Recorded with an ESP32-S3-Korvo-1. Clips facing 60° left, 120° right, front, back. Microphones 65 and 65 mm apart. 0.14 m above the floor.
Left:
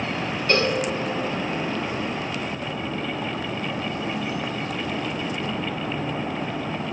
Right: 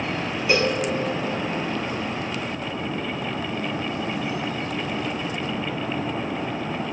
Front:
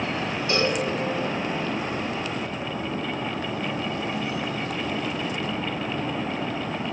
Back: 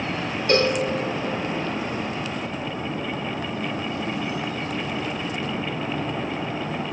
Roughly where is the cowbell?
Behind.